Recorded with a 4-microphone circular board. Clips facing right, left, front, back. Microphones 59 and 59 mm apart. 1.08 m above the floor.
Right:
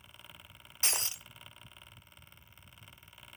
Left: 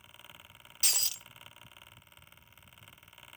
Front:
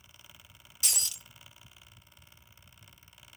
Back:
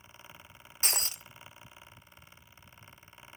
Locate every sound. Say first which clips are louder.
0.8 s breaking glass: right 2 dB, back 3 dB; 145° right, 0.5 m